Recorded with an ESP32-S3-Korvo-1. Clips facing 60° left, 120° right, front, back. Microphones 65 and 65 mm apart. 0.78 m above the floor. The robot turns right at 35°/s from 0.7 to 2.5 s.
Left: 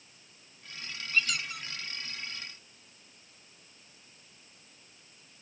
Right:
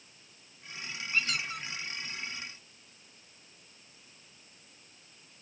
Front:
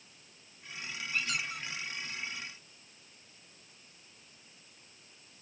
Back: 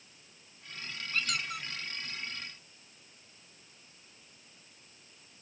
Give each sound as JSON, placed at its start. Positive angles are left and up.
{"t": 1.1, "sound": "a squeak", "azimuth_deg": 180, "distance_m": 1.3}